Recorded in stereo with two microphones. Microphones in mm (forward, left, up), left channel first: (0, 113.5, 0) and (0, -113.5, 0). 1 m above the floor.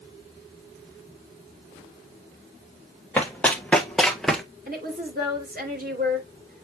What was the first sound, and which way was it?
Running footsteps, 5° left (ahead or behind).